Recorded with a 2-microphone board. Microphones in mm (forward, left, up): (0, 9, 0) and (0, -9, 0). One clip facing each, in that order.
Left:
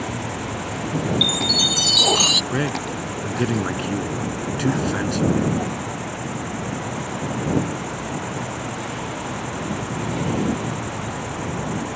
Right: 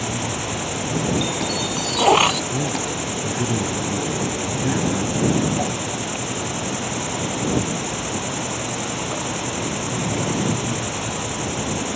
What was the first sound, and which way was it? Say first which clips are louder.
An insect: right 2 dB; 50° right (ahead or behind).